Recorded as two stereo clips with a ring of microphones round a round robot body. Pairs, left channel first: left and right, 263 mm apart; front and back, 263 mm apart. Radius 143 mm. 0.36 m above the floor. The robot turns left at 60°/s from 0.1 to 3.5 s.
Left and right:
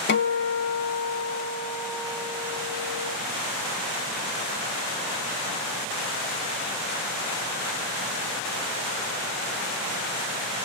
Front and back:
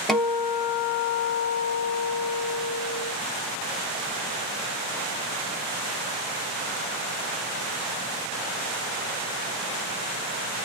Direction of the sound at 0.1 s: 90° left.